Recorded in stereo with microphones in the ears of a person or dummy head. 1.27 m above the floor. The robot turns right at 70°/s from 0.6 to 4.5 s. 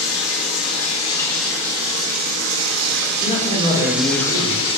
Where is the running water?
120° left, 1.4 m; by 4.8 s 30° left, 1.4 m.